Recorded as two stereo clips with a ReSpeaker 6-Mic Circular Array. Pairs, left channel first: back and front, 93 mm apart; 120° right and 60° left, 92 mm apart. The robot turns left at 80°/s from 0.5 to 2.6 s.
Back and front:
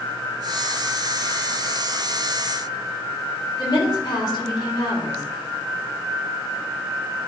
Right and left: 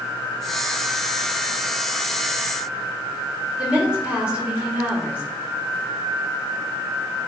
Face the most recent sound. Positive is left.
turn(degrees=135)